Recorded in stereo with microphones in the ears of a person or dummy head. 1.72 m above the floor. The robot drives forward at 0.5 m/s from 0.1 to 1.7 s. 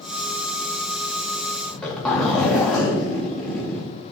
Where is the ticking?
I don't hear ticking.